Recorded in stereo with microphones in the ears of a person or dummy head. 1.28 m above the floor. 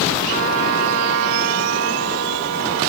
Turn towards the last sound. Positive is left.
turn(degrees=-70)  # may be behind; listen again after turning